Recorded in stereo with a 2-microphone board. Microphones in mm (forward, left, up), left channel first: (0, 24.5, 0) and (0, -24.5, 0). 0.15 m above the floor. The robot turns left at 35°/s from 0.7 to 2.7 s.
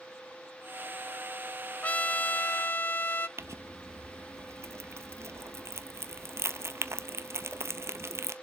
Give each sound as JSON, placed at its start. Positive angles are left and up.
{"t": 1.8, "sound": "a trumpet", "azimuth_deg": 135, "distance_m": 0.6}
{"t": 3.4, "sound": "crumpling", "side_deg": -60, "distance_m": 0.6}